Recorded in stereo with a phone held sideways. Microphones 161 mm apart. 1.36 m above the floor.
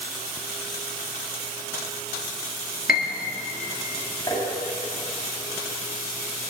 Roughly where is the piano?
Left.